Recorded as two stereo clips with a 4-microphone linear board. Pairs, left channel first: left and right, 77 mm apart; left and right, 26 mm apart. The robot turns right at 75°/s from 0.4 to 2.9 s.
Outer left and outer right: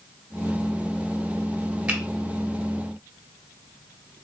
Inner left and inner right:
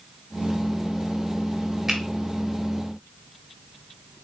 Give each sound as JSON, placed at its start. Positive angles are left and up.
{"t": 1.9, "sound": "a finger snap", "side_deg": -15, "distance_m": 1.4}